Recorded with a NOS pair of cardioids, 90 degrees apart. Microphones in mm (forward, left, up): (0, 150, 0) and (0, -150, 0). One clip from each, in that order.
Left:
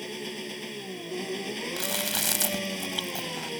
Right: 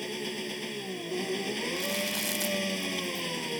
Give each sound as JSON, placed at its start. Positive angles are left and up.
{"t": 0.0, "sound": "an engine running", "azimuth_deg": -10}
{"t": 1.8, "sound": "chewing", "azimuth_deg": 60}